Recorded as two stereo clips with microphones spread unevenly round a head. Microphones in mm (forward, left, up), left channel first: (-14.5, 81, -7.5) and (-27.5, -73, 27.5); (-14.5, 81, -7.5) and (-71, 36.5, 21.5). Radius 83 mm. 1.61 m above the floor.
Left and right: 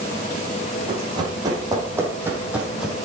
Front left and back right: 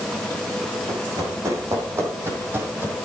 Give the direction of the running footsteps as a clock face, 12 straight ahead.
5 o'clock.